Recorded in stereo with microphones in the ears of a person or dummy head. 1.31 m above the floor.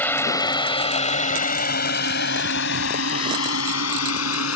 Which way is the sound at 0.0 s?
10° left (ahead or behind).